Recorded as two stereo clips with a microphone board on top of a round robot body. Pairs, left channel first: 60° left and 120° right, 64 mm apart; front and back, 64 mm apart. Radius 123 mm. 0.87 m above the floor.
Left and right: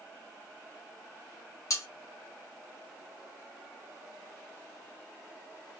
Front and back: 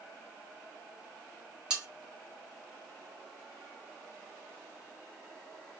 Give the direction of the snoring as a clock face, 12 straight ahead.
No snoring in this recording.